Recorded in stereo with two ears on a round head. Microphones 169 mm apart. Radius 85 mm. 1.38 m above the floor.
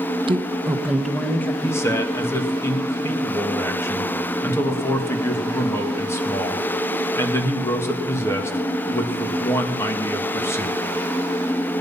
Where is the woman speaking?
30° right (ahead or behind), 1.0 m; by 1.5 s 10° left (ahead or behind), 1.7 m.